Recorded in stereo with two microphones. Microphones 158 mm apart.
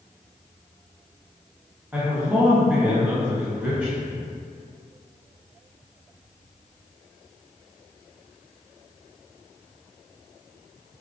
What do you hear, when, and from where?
1.9 s a man speaking: 10° right (ahead or behind), 1.0 m